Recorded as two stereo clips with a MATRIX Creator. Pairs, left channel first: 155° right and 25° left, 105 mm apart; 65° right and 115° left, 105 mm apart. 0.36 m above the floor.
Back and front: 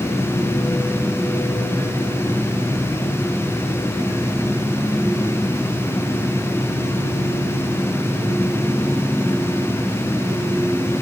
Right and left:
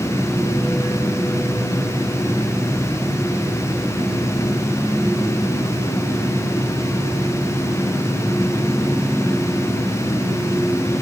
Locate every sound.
Only background noise.